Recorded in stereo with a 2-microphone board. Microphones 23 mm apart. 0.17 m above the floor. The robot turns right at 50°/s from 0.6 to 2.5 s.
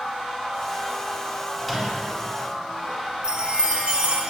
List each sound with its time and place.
1.6 s a microwave: 5° left (ahead or behind), 1.1 m; by 2.1 s 15° right (ahead or behind), 1.1 m
3.2 s a chime: 35° right (ahead or behind), 1.1 m